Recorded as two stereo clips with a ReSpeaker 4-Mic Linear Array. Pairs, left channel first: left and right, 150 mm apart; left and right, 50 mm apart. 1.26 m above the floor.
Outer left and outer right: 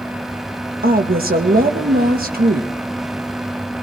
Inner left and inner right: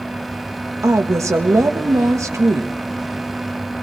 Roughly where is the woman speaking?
Right.